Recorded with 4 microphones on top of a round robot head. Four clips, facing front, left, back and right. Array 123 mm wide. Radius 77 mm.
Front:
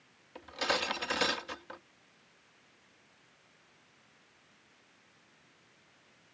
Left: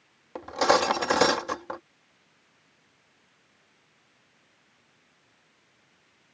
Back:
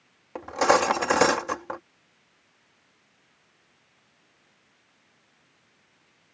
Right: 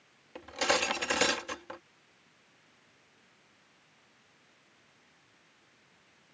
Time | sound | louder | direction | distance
0.3 | cutlery clinking | left 9 dB, back 14 dB | 145° left | ?